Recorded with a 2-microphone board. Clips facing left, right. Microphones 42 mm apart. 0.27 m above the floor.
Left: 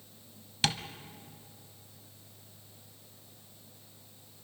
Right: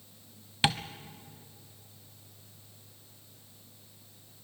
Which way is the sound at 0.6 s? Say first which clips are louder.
Right 3 dB; 20° right (ahead or behind).